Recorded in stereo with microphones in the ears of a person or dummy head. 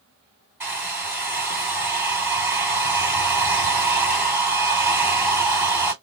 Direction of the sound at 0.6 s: 5° right (ahead or behind).